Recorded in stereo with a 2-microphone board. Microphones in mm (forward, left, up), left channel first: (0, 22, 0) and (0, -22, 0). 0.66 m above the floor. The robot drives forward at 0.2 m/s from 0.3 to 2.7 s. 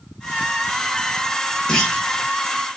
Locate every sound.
1.7 s a clunk: 15° left (ahead or behind), 1.0 m